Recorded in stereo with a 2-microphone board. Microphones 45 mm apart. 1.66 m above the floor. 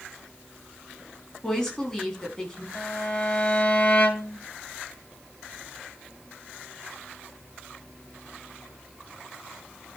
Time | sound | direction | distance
1.4 | a woman speaking | 15° left (ahead or behind) | 4.5 m
2.8 | a violin | 35° left (ahead or behind) | 1.8 m